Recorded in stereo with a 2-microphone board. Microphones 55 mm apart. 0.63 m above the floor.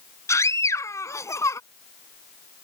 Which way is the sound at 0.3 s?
75° left (ahead or behind).